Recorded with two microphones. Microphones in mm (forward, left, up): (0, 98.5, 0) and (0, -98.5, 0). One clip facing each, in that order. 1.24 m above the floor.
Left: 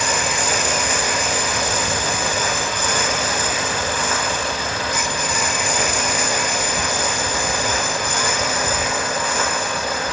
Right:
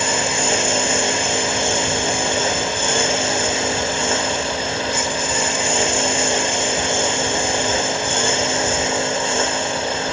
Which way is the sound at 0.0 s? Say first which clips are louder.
Right 2 dB; 25° right (ahead or behind).